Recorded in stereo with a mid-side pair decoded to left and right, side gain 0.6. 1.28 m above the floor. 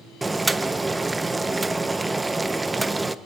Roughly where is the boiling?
Ahead.